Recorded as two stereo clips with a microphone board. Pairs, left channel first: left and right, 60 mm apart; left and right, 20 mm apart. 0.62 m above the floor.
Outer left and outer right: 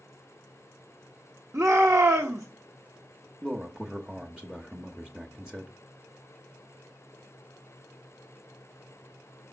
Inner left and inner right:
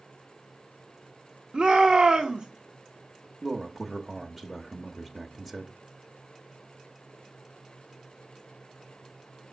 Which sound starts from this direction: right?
A shout, at 1.5 s.